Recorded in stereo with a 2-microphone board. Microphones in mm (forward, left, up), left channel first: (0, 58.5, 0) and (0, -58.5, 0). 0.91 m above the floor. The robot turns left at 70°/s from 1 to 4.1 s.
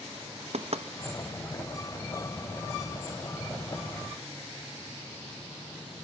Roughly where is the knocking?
Right.